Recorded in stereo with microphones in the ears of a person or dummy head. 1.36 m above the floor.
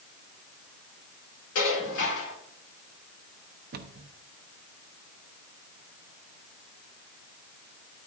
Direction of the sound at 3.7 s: 50° right (ahead or behind).